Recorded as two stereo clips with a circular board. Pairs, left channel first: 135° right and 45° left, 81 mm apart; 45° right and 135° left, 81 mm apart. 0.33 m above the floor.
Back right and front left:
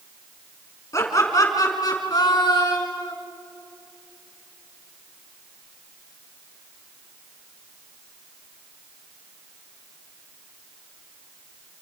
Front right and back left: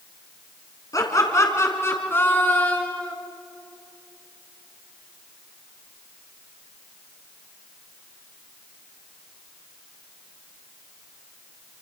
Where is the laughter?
85° right, 3.5 m; by 3.1 s 115° right, 4 m.